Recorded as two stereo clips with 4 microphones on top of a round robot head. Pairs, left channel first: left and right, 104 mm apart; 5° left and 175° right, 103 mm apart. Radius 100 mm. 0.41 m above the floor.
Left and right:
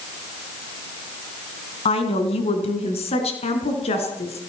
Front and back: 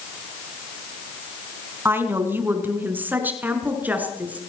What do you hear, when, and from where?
1.9 s a woman speaking: 115° left, 4 m; by 4.4 s 110° left, 5.5 m